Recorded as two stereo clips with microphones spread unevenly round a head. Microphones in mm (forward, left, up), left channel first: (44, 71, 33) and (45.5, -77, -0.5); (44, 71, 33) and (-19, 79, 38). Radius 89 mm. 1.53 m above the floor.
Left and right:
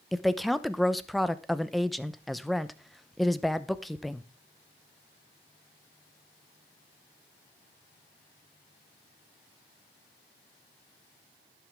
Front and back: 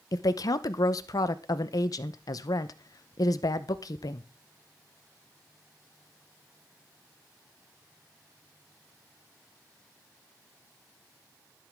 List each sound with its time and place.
0.1 s a woman speaking: 10° left, 0.8 m